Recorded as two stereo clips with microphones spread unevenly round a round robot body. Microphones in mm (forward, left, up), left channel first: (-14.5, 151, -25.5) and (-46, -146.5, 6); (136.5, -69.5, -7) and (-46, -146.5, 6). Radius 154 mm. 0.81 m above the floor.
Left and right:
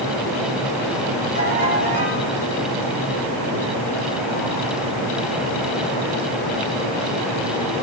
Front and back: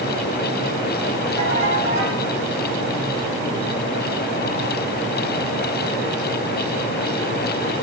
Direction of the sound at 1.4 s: 140° left.